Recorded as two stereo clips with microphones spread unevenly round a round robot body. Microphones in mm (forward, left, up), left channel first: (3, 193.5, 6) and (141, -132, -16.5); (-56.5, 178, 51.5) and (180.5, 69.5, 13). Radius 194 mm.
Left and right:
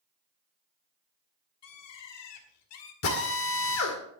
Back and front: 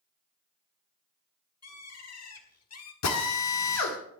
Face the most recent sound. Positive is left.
turn(degrees=165)